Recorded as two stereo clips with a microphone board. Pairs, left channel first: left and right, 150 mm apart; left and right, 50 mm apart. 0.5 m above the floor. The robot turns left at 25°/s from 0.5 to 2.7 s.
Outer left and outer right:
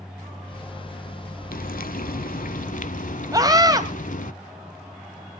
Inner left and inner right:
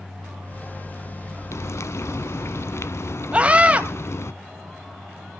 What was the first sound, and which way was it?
Frying, 70° left (ahead or behind).